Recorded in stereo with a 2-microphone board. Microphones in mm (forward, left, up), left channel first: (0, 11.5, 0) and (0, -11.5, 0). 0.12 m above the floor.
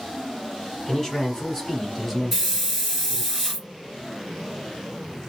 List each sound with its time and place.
0.9 s a man speaking: 20° left (ahead or behind), 1.7 m; by 3.3 s 5° right (ahead or behind), 1.6 m
2.3 s a hiss: 15° right (ahead or behind), 2 m